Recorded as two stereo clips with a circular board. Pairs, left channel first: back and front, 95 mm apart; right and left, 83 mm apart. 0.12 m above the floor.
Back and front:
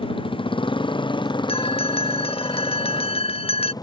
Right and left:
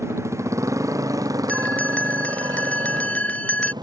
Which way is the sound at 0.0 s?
150° left.